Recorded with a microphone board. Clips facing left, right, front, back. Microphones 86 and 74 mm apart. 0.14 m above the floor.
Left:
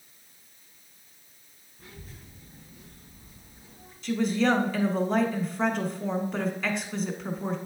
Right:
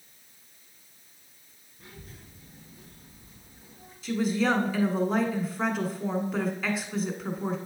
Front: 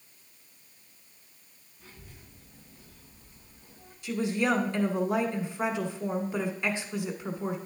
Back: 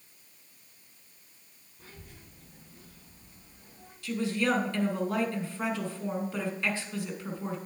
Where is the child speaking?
175° left, 3.5 m.